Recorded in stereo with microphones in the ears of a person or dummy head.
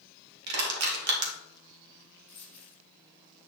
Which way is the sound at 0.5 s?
70° right (ahead or behind).